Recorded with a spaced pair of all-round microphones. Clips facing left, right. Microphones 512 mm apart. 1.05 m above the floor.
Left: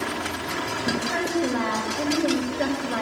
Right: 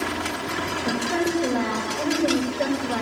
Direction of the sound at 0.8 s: 55° right (ahead or behind).